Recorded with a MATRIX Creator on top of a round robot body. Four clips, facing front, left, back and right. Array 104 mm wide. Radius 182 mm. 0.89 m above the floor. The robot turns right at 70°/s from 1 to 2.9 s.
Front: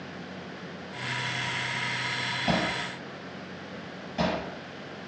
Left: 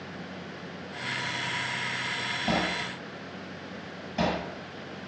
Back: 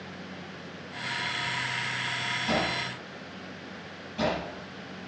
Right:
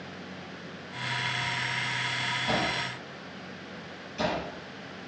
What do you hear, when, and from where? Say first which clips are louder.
2.5 s hammering: left 2 dB, front 1 dB; 30° left, 7.5 m; by 4.4 s 60° left, 7.5 m